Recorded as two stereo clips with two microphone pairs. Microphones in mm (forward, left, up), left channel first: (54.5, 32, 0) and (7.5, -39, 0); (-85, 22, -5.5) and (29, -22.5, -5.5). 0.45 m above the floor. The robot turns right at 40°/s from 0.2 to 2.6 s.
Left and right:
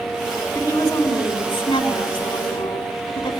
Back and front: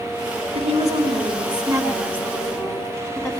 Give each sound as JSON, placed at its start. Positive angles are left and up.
{"t": 0.6, "sound": "a woman speaking", "azimuth_deg": -5, "distance_m": 3.5}